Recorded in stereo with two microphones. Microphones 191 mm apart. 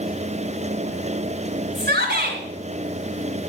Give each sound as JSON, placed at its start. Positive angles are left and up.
{"t": 1.8, "sound": "a shout", "side_deg": -55, "distance_m": 3.0}